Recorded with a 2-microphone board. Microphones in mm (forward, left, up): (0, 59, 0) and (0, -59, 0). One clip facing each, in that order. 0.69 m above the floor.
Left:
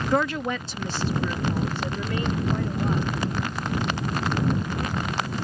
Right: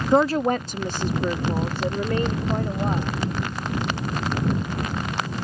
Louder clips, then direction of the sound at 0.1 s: Right 7 dB; 20° right (ahead or behind).